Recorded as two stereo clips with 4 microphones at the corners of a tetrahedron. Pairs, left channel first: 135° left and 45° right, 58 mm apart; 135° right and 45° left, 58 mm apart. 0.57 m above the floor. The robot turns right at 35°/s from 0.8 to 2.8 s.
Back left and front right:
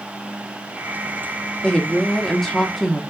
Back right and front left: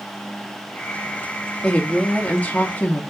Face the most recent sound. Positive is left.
turn(degrees=-135)